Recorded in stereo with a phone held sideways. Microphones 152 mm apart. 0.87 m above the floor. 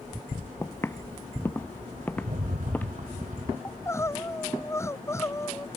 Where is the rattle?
65° right (ahead or behind).